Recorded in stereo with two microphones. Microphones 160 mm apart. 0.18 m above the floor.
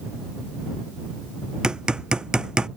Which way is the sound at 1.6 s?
5° right (ahead or behind).